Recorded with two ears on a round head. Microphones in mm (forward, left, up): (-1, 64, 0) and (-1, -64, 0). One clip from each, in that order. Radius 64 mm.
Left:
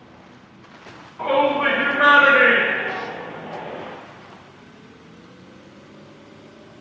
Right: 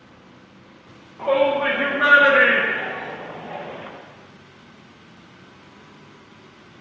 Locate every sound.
1.2 s a shout: 45° left (ahead or behind), 2.0 m; by 3.9 s 65° right (ahead or behind), 1.7 m